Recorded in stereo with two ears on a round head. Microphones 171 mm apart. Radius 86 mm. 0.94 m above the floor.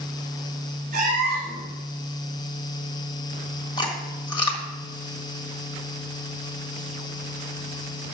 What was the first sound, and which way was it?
A cat meowing, 40° right (ahead or behind).